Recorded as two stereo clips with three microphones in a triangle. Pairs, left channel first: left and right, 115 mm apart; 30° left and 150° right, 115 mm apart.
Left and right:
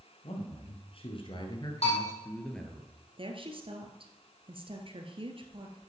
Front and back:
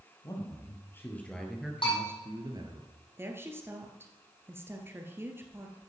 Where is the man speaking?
85° left, 3 m; by 2.8 s 175° right, 2 m.